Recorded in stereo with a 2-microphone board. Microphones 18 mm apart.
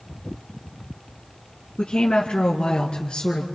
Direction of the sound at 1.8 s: 60° left (ahead or behind).